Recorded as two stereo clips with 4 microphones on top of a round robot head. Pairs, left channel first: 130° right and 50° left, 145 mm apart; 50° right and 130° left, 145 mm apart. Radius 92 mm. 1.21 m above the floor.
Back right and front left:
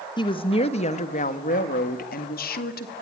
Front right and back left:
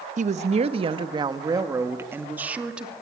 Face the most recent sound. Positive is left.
turn(degrees=-145)